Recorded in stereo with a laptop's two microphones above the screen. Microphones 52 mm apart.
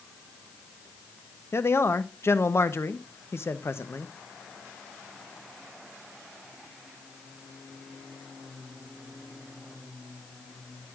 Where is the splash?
I don't hear a splash.